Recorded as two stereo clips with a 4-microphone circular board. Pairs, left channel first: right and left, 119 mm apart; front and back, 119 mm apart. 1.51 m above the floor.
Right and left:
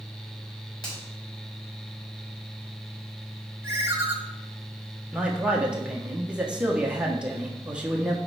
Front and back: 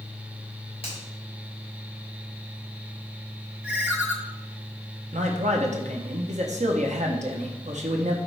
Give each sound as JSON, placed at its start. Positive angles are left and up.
{"t": 0.8, "sound": "a finger snap", "azimuth_deg": -40, "distance_m": 4.0}
{"t": 3.6, "sound": "a ringtone", "azimuth_deg": 115, "distance_m": 1.1}
{"t": 5.1, "sound": "a man speaking", "azimuth_deg": 170, "distance_m": 1.2}